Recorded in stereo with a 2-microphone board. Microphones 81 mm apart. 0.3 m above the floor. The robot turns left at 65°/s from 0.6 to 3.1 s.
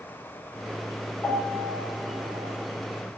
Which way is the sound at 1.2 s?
30° left (ahead or behind).